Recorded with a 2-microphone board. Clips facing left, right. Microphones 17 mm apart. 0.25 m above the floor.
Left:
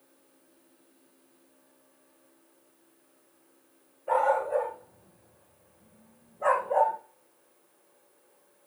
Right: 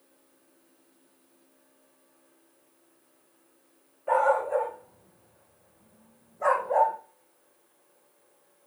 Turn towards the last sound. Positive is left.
turn(degrees=-80)